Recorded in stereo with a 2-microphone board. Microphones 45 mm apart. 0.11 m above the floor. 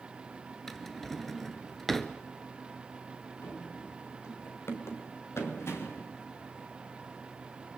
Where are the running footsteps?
75° left (ahead or behind), 4 m; by 6.1 s 90° left, 4.5 m.